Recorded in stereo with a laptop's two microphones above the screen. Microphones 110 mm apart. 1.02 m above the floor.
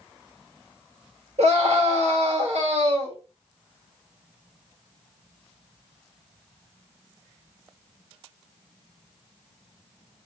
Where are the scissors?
I don't hear scissors.